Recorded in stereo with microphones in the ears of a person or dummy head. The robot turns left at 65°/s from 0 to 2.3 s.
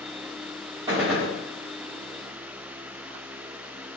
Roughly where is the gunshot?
Behind.